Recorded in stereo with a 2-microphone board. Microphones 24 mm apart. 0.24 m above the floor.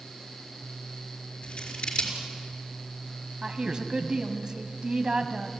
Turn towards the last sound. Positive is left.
turn(degrees=-35)  # may be behind; listen again after turning